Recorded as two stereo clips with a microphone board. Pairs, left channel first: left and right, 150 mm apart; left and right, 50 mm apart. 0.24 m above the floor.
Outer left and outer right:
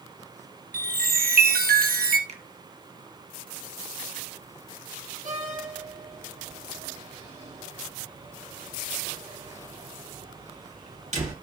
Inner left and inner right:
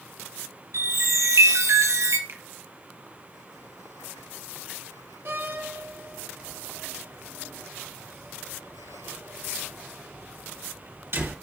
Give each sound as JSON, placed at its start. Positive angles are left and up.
{"t": 0.7, "sound": "a chime", "side_deg": -85, "distance_m": 1.2}
{"t": 2.3, "sound": "a finger snap", "side_deg": -50, "distance_m": 1.7}
{"t": 5.2, "sound": "a door slam", "side_deg": -50, "distance_m": 3.5}